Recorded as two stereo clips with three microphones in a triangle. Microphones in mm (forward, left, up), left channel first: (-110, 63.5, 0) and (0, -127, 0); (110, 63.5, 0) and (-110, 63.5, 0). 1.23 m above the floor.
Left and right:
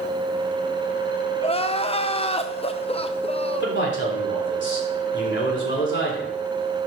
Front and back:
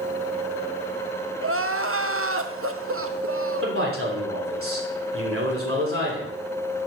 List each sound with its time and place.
1.4 s crying: 175° right, 0.6 m
3.6 s a man speaking: 155° left, 3 m